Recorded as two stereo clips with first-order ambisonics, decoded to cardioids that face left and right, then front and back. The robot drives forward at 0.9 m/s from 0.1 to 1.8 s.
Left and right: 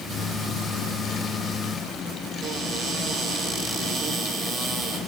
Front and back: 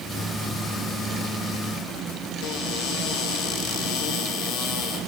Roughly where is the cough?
I don't hear a cough.